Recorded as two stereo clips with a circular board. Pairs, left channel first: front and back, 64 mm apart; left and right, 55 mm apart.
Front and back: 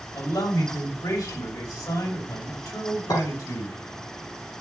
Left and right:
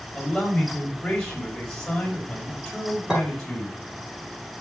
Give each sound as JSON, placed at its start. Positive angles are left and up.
{"t": 0.1, "sound": "a man speaking", "azimuth_deg": 15, "distance_m": 5.0}
{"t": 3.1, "sound": "a clink", "azimuth_deg": -15, "distance_m": 9.5}